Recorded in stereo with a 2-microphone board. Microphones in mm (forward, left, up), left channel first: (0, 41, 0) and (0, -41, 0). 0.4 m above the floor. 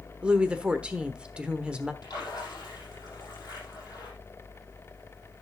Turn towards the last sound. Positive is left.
turn(degrees=50)  # may be behind; listen again after turning